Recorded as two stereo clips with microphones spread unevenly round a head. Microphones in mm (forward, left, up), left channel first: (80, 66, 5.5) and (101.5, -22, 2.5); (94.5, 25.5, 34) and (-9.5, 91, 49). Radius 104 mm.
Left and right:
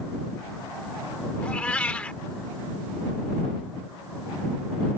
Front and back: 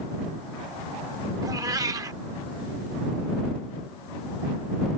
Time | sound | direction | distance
1.4 | a cat meowing | 165° left | ?